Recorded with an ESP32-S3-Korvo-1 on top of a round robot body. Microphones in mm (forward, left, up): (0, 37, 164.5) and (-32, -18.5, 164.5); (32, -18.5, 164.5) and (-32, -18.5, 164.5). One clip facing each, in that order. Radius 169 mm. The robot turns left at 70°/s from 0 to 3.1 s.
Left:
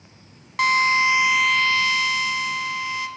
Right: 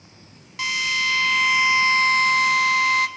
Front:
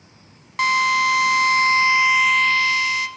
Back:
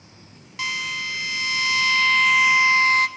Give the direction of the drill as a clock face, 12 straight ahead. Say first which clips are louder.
Left 6 dB, front 11 dB; 11 o'clock.